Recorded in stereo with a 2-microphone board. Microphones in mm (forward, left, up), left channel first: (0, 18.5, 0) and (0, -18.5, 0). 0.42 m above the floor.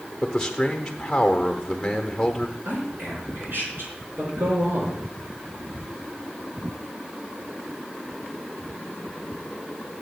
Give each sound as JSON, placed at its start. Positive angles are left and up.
{"t": 0.2, "sound": "a man speaking", "side_deg": 15, "distance_m": 0.9}
{"t": 2.6, "sound": "a man speaking", "side_deg": -70, "distance_m": 5.0}